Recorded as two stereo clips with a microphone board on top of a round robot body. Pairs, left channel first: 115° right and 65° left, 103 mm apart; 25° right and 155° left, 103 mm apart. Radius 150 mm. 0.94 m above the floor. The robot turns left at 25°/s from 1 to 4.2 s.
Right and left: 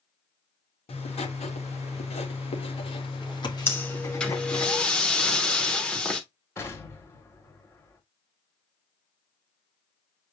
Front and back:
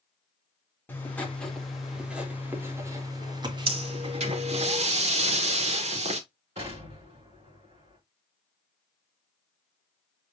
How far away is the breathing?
About 3 m.